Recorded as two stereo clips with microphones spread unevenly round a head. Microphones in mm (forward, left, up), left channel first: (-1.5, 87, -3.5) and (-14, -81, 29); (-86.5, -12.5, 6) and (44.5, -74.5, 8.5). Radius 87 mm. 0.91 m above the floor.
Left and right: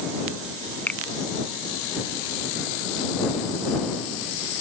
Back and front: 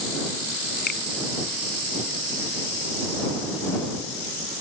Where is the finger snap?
170° left.